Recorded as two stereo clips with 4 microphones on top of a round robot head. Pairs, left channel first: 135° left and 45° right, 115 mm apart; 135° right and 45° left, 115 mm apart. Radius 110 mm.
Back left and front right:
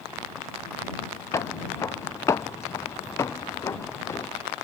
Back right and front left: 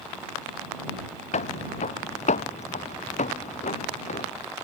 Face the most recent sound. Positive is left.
turn(degrees=-160)